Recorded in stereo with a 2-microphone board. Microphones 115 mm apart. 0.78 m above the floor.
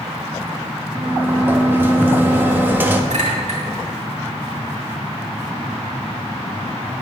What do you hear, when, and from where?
0.9 s a sliding door: 15° right (ahead or behind), 0.7 m
3.1 s a clink: 85° right, 2.0 m